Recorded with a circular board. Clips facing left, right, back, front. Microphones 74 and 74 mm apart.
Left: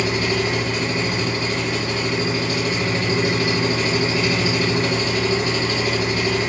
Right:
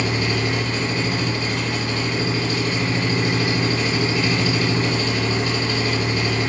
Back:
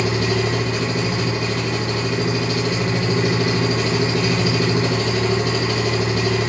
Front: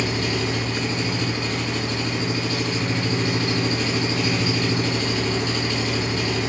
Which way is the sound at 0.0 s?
160° left.